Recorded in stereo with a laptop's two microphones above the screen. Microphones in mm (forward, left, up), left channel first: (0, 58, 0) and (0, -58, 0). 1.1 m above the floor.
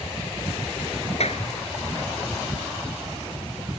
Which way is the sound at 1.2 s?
65° left (ahead or behind).